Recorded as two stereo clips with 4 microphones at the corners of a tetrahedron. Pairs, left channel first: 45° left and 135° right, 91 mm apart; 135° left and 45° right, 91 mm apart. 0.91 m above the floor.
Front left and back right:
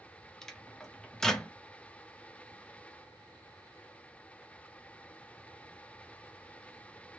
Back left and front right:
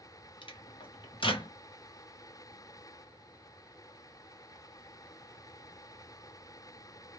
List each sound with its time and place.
0.4 s a microwave: 130° left, 0.7 m